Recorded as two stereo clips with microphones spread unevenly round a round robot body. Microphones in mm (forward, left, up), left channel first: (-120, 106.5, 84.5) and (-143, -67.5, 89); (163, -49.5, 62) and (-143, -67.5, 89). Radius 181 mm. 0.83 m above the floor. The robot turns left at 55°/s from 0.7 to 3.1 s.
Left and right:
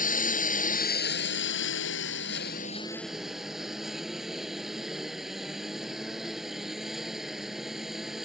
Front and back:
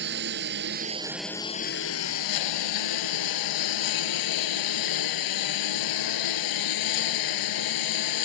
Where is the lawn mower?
125° left; by 8.3 s 10° right.